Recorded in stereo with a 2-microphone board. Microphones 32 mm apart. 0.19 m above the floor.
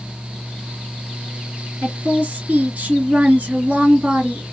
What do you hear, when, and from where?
1.8 s a woman speaking: 60° right (ahead or behind), 3 m